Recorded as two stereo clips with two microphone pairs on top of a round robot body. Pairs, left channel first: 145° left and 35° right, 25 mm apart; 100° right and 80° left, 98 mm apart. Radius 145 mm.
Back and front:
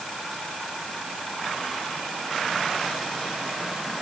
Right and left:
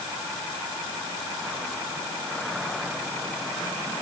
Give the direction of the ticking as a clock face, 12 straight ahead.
No ticking in this recording.